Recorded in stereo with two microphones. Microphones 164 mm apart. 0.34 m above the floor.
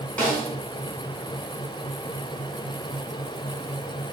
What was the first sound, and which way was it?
A snare drum, 5° left (ahead or behind).